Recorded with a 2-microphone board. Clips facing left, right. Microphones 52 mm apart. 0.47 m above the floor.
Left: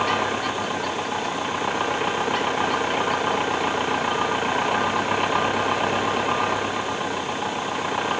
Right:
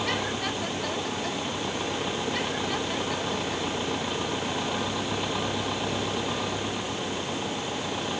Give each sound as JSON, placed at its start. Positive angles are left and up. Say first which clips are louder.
{"t": 0.0, "sound": "an engine running", "louder": "left 6 dB", "side_deg": 55}